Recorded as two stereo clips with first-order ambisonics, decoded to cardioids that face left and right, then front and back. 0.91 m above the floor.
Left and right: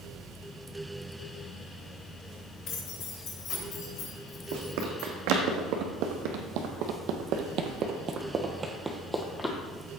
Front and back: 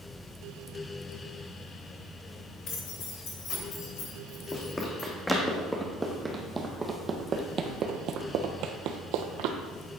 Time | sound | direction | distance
2.7 | keys jangling | 45° left | 3 m
4.5 | running footsteps | 80° right | 3 m